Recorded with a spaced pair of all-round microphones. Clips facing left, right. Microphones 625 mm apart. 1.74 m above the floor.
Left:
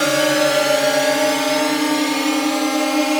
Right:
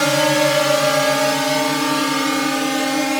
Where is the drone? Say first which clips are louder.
Even; 30° right (ahead or behind); by 3.2 s 45° right (ahead or behind).